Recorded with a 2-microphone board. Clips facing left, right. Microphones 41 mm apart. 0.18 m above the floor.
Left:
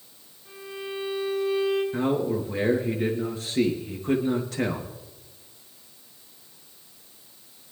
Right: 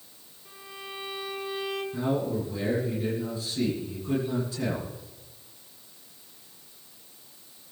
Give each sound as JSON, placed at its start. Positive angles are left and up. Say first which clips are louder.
{"t": 0.5, "sound": "a violin", "louder": "left 6 dB", "side_deg": -10, "distance_m": 6.5}
{"t": 1.9, "sound": "a man speaking", "louder": "left 3 dB", "side_deg": 65, "distance_m": 3.5}